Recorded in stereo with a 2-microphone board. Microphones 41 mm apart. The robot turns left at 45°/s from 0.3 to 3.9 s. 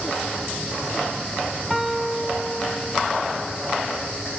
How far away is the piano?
About 1.3 m.